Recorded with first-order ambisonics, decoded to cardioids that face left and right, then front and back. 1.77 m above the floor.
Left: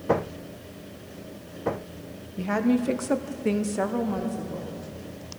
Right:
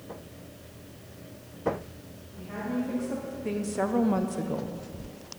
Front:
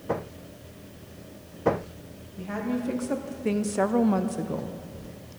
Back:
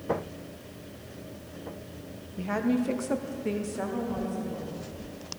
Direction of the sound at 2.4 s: 110° left.